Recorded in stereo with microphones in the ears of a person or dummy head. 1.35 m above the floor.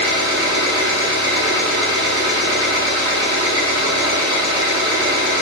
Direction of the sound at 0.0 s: 65° right (ahead or behind).